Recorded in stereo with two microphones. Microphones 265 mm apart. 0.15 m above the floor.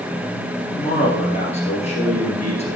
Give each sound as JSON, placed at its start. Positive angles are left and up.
{"t": 0.8, "sound": "a man speaking", "side_deg": 25, "distance_m": 2.5}